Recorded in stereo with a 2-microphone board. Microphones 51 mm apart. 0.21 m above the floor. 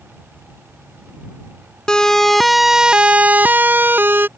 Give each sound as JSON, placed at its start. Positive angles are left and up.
{"t": 1.9, "sound": "a siren", "side_deg": 15}